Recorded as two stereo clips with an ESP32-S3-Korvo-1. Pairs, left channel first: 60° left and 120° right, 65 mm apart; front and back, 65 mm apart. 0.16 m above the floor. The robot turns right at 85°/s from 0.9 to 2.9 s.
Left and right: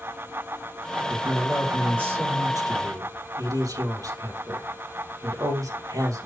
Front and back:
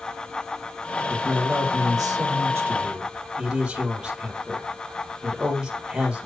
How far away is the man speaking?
About 3.5 m.